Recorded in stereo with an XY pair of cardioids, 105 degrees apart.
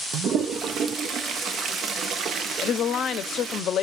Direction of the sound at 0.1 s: 65° right.